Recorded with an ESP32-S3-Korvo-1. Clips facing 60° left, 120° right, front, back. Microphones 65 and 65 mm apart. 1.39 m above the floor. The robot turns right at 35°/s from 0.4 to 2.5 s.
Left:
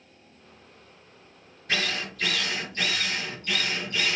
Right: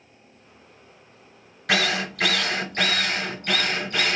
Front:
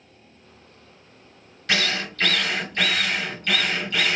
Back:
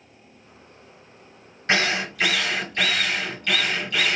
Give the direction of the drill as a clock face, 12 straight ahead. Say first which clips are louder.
Right 6 dB, back 3 dB; 4 o'clock.